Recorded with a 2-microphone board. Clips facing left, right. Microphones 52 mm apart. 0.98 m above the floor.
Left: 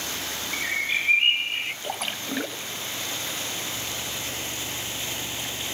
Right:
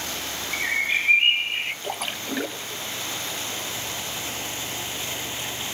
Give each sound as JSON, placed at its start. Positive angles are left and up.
{"t": 0.5, "sound": "a bird", "side_deg": -15, "distance_m": 1.0}
{"t": 1.8, "sound": "a splash", "side_deg": 0, "distance_m": 1.1}